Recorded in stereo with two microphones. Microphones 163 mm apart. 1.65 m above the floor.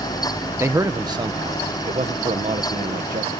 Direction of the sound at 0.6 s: 15° right (ahead or behind).